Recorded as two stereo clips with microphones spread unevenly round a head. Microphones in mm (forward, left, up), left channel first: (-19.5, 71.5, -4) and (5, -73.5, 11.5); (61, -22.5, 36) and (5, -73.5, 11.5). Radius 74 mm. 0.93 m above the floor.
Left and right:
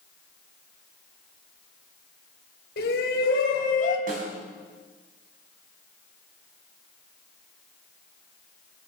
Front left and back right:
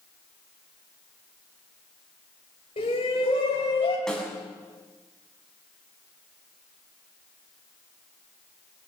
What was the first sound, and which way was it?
A shout, 75° left.